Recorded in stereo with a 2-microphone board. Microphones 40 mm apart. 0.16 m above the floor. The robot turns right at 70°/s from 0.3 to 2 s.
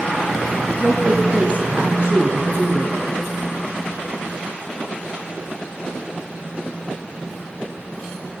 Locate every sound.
0.8 s a woman speaking: 165° right, 1.4 m; by 2.9 s 80° right, 1.4 m